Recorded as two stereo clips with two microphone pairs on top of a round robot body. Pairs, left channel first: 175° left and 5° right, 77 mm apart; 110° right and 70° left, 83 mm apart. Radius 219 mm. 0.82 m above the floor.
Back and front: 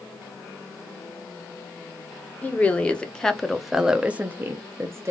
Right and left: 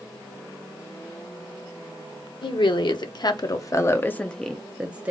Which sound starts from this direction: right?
A woman speaking, at 2.4 s.